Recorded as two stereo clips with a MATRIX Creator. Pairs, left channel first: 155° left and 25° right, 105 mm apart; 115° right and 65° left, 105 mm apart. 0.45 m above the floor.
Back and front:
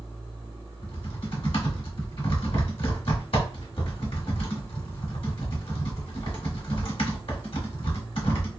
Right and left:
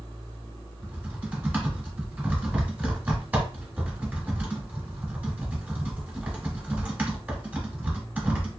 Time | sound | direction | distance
0.8 | typing on a keyboard | 140° left | 1.1 m